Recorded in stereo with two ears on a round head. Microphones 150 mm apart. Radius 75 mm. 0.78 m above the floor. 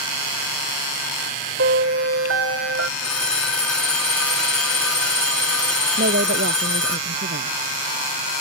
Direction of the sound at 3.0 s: 5° left (ahead or behind).